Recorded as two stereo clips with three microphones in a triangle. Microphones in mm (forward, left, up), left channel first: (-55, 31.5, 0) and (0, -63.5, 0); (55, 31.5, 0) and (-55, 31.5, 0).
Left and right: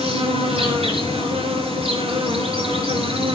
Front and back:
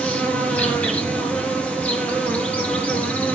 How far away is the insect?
About 4 m.